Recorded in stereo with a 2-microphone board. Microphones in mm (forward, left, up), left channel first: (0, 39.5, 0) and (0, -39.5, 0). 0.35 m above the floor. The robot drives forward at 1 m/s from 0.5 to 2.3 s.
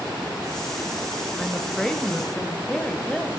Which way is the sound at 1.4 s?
10° left (ahead or behind).